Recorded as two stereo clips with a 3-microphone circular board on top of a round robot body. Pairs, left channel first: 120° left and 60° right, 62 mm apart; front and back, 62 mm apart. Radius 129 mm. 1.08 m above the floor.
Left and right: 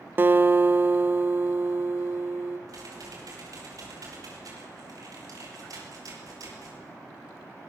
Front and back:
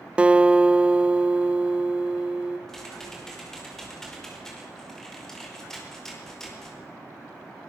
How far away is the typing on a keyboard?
About 5 m.